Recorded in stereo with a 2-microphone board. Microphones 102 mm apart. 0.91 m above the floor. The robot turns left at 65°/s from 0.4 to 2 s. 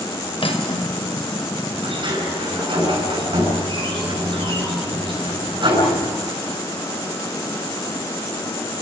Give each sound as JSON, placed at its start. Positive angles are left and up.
{"t": 0.4, "sound": "cutlery clinking", "azimuth_deg": 125, "distance_m": 2.5}
{"t": 1.8, "sound": "a sliding door", "side_deg": -60, "distance_m": 7.0}